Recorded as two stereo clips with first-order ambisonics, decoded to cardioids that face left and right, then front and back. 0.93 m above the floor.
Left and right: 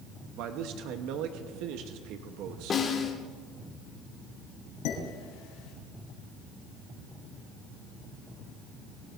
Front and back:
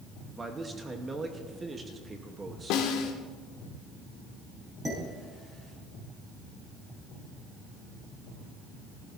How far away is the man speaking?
About 1.0 m.